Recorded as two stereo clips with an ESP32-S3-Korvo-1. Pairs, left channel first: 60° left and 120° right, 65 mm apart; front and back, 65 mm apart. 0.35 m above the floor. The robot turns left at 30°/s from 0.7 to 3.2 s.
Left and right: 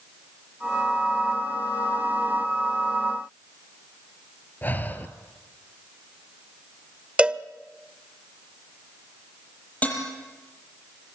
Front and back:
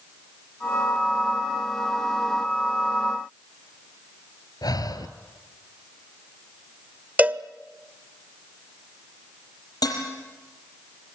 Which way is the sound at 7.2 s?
165° right.